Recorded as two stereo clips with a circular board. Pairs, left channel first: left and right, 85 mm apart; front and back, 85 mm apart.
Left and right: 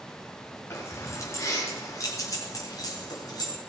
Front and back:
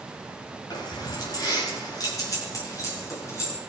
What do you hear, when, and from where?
0.7 s keys jangling: 30° left, 5 m; by 3.6 s 55° left, 5 m